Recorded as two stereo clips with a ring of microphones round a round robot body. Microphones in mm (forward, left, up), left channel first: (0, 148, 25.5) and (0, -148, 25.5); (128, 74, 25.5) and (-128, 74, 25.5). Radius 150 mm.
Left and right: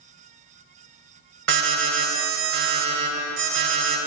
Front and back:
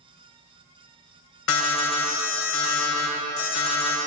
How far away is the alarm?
About 4 m.